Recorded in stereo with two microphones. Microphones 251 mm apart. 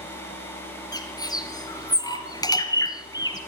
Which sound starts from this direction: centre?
A bird, at 0.9 s.